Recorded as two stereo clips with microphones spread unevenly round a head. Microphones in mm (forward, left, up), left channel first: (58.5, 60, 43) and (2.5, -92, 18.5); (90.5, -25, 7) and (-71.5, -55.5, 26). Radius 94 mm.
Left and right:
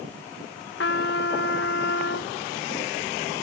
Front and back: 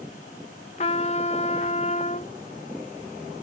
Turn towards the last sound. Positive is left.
turn(degrees=70)